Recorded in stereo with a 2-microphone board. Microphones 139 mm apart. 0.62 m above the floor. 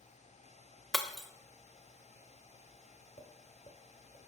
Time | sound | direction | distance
0.9 | breaking glass | centre (ahead or behind) | 0.5 m
3.2 | tapping | 50° left (ahead or behind) | 1.2 m